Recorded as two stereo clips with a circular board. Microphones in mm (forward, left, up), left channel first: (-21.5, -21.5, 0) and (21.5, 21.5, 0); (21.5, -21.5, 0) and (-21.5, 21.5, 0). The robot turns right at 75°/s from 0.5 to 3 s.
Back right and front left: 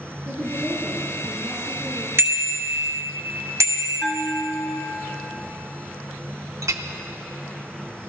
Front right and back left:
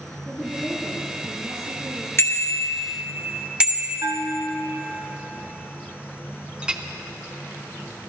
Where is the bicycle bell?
Straight ahead, 2.5 m; by 4.0 s 65° left, 2.5 m.